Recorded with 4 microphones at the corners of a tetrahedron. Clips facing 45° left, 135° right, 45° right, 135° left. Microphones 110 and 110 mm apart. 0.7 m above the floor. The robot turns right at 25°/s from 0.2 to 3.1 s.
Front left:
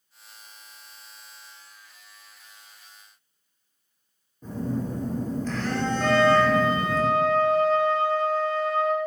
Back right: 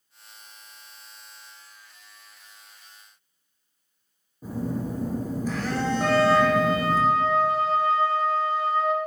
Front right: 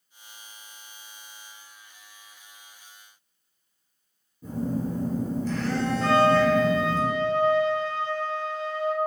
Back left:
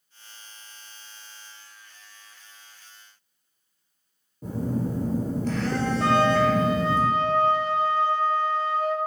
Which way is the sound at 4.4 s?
145° left.